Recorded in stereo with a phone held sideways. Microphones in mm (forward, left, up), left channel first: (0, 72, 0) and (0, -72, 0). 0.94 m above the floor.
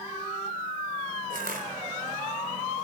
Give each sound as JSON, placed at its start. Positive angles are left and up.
{"t": 1.3, "sound": "crushing", "side_deg": -80, "distance_m": 3.5}